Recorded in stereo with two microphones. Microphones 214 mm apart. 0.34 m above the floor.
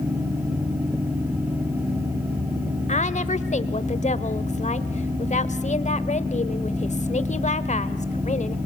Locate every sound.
2.9 s a woman speaking: 35° left (ahead or behind), 1.1 m